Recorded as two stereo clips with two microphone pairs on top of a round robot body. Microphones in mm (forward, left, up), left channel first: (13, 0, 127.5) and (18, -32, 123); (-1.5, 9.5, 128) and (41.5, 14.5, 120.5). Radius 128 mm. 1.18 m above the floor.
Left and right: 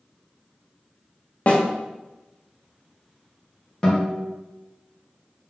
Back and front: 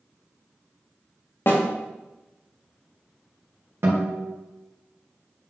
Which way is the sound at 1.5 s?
150° left.